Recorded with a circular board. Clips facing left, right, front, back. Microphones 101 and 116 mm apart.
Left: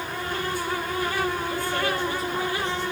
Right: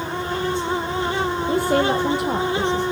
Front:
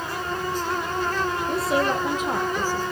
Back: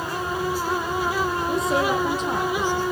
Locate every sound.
1.5 s a woman speaking: 85° right, 4 m; by 2.8 s 80° right, 5.5 m